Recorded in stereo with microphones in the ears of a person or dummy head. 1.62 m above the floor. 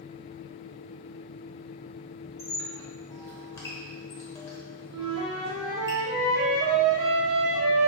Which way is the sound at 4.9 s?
70° right (ahead or behind).